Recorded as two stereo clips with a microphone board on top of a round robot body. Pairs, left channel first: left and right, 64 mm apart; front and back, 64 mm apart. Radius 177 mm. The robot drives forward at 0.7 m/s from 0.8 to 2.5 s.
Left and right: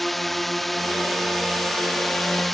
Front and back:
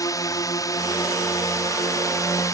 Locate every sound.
0.0 s a drone: 5° left